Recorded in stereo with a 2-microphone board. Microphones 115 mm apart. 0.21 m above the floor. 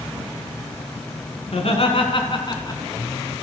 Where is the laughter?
55° left (ahead or behind), 2.5 m; by 2.8 s 35° left (ahead or behind), 2.5 m.